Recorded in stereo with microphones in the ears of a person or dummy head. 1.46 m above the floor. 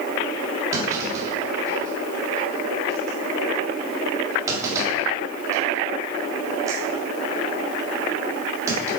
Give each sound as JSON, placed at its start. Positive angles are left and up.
{"t": 0.7, "sound": "a clunk", "side_deg": -20, "distance_m": 3.5}